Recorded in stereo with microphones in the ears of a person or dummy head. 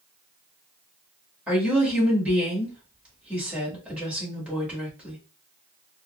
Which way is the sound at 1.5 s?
10° right (ahead or behind).